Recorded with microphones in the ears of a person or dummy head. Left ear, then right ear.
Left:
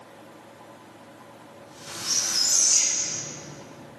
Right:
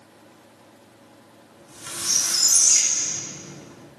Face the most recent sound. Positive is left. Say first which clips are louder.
# right 3 dB
turn(degrees=-55)  # may be behind; listen again after turning